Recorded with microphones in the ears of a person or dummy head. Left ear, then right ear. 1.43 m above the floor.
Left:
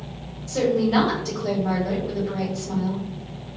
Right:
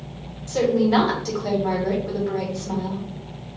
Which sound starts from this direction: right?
A woman speaking, at 0.5 s.